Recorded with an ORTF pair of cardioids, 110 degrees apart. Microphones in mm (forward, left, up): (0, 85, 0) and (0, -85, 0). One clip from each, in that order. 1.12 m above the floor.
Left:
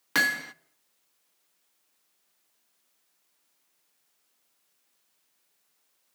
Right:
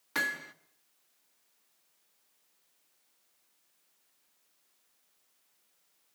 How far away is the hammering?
About 1.0 m.